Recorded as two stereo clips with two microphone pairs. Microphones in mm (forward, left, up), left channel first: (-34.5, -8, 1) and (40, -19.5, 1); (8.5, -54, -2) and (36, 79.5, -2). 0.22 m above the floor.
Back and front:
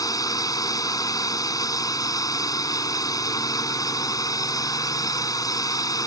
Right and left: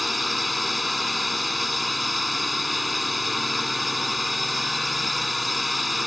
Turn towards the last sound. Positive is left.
turn(degrees=170)